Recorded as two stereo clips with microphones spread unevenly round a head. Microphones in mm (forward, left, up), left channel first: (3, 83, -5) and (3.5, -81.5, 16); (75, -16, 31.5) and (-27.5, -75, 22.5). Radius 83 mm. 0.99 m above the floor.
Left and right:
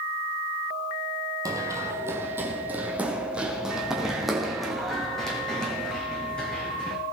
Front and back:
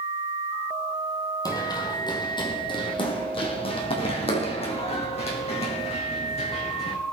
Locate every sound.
1.4 s running footsteps: 25° right, 2.5 m; by 7.0 s 5° left, 4.5 m